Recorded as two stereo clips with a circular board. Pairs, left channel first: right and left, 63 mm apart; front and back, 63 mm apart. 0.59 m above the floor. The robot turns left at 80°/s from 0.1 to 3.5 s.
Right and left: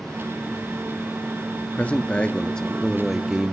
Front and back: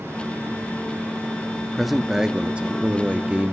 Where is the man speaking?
80° right, 0.6 m; by 3.5 s 140° left, 0.6 m.